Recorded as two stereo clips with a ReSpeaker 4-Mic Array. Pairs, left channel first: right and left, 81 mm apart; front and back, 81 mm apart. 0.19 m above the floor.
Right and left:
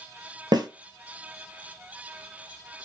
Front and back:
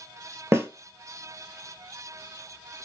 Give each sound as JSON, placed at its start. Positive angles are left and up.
{"t": 0.5, "sound": "a snare drum", "azimuth_deg": 125, "distance_m": 0.6}